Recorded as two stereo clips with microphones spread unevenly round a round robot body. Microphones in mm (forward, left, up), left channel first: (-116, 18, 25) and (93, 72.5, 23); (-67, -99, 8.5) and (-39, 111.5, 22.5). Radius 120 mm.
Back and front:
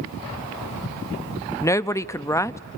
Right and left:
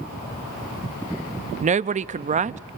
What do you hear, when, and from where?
1.6 s a woman speaking: 125° left, 0.5 m